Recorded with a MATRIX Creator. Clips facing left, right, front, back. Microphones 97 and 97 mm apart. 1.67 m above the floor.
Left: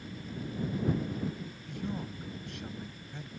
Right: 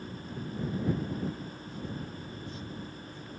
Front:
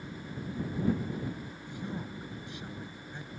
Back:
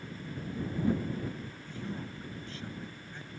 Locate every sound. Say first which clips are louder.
1.7 s a man speaking: left 4 dB, front 1 dB; 75° left